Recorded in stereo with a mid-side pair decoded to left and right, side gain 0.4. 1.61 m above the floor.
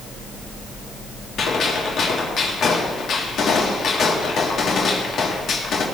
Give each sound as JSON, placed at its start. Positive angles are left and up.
{"t": 1.4, "sound": "a gunshot", "azimuth_deg": 65, "distance_m": 3.0}